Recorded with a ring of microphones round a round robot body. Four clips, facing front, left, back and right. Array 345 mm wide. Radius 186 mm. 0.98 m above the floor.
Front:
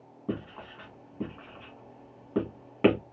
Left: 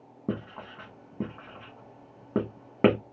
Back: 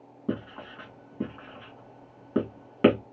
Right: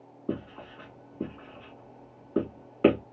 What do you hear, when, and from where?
0.3 s writing: 105° left, 1.8 m